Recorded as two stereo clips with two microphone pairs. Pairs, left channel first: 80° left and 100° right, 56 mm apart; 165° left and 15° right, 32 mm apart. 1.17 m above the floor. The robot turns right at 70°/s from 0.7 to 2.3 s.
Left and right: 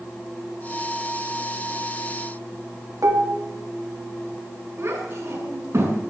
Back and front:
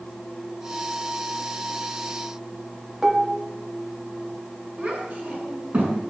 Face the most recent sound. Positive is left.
turn(degrees=-60)